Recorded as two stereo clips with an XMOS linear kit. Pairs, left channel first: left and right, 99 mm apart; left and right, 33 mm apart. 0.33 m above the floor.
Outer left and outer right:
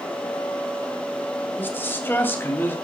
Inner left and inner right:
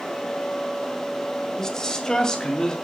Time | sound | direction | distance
1.6 | a man speaking | 20° left (ahead or behind) | 1.4 m